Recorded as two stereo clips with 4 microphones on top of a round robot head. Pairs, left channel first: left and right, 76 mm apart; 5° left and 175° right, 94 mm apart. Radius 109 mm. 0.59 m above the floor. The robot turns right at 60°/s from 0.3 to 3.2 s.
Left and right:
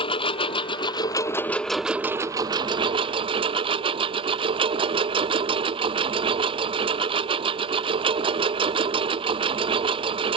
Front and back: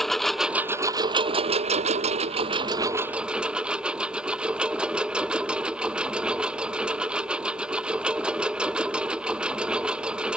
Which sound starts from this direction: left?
A lawn mower, at 0.0 s.